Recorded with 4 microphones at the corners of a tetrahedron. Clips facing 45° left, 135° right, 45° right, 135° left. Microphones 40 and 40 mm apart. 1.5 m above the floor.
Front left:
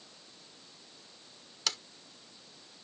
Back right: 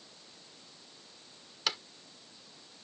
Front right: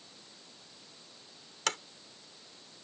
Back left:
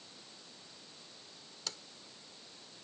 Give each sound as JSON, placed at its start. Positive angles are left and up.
{"t": 1.7, "sound": "a sliding door", "azimuth_deg": -60}